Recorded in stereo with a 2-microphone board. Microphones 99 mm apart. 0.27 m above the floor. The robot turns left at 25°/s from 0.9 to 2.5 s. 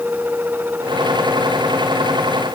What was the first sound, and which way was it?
Only background noise.